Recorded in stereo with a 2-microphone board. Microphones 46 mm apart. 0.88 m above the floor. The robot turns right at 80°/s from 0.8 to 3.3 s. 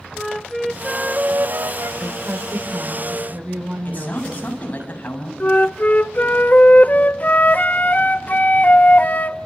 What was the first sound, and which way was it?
A flute, 175° left.